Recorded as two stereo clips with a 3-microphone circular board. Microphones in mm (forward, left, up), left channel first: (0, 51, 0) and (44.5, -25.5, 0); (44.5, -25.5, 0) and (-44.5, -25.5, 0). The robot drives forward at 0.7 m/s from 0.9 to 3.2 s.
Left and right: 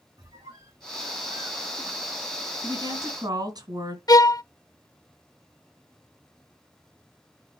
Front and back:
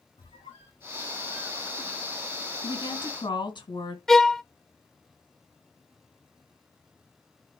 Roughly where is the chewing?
No chewing in this recording.